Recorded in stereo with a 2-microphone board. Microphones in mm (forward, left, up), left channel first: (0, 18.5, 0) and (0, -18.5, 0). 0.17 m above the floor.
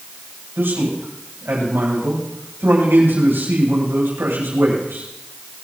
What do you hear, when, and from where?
0.6 s a man speaking: 80° right, 9.5 m